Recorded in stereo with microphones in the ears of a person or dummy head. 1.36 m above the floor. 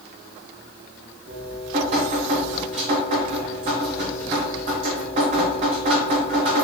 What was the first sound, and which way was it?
Dripping, 35° right (ahead or behind).